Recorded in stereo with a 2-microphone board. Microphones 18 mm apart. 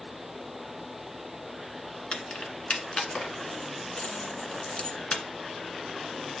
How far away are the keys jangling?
About 1.7 m.